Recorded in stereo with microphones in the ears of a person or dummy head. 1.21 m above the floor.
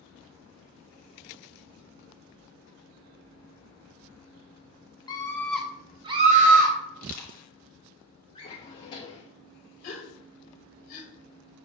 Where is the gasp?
45° left (ahead or behind), 0.9 m.